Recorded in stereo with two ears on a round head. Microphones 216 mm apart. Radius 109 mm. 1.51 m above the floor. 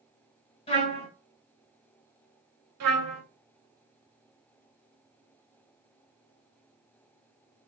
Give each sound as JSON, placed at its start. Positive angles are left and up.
{"t": 0.7, "sound": "a trumpet", "side_deg": 25, "distance_m": 2.5}
{"t": 2.8, "sound": "a trumpet", "side_deg": -80, "distance_m": 2.0}